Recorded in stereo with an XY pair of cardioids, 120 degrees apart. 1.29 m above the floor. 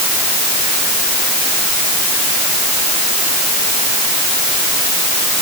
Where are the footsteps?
No footsteps in this recording.